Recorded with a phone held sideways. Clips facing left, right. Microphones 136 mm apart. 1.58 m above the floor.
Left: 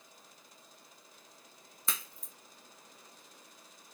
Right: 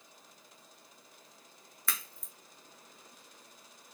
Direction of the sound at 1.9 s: 20° left (ahead or behind).